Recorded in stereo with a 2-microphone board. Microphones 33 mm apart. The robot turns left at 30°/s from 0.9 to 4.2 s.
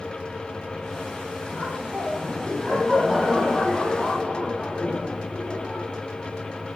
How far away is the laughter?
About 10 m.